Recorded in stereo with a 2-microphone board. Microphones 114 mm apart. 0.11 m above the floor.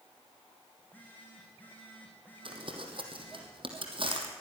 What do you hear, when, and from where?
0.8 s a phone buzzing: 15° left (ahead or behind), 7 m
2.5 s crumpling: 50° right (ahead or behind), 3.5 m